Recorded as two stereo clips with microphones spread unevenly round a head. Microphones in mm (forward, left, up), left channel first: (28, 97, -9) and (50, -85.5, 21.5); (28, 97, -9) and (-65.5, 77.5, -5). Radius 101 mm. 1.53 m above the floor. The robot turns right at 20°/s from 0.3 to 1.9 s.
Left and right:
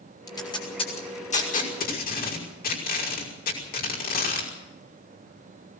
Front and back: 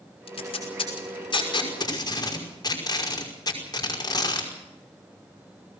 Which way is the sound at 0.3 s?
25° left.